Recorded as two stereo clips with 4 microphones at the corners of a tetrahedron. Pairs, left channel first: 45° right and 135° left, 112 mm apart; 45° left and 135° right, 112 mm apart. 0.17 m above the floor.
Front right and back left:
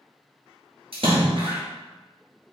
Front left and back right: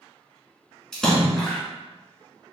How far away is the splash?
About 1.5 m.